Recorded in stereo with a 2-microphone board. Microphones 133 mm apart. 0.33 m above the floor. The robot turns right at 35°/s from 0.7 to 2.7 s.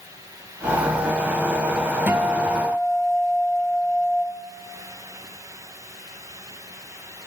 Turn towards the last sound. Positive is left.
turn(degrees=0)  # may be behind; listen again after turning